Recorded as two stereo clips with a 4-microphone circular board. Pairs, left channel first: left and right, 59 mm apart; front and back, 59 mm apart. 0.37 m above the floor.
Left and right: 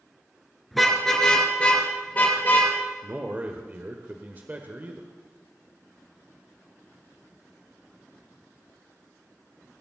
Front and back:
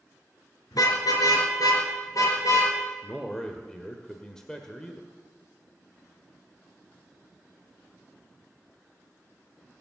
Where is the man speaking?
70° right, 1.2 m.